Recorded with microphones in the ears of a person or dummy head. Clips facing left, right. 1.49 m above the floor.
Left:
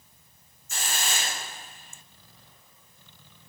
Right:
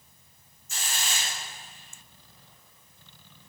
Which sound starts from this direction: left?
A hiss, at 0.7 s.